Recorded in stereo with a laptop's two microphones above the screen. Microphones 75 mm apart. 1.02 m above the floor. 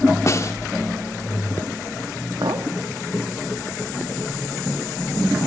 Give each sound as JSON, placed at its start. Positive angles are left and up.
{"t": 0.3, "sound": "a snare drum", "side_deg": 40, "distance_m": 0.8}
{"t": 2.4, "sound": "a clink", "side_deg": -80, "distance_m": 1.3}